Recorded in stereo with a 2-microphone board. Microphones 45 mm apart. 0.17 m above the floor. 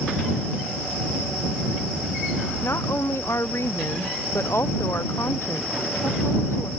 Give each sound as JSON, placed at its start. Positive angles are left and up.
{"t": 2.6, "sound": "a woman speaking", "side_deg": 75}